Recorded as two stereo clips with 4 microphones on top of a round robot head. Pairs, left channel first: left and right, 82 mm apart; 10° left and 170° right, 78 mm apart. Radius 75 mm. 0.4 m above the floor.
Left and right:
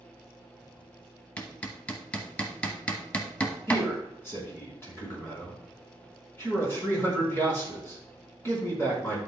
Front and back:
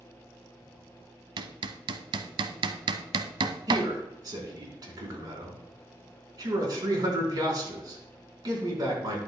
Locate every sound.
1.4 s hammering: 170° left, 0.8 m
3.7 s a man speaking: 155° left, 4.5 m